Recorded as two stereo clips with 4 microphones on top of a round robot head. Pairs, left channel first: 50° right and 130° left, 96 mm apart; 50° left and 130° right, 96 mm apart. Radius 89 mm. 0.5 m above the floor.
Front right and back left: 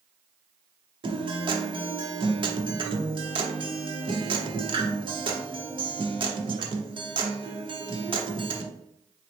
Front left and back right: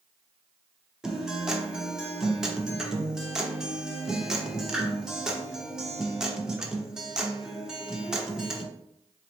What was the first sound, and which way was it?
A guitar, 145° left.